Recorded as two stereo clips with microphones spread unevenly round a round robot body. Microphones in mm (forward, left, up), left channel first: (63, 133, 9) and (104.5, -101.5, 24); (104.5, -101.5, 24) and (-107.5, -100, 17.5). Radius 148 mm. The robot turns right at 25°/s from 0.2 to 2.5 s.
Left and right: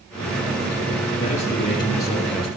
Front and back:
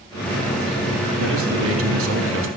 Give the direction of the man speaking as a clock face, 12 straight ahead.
7 o'clock.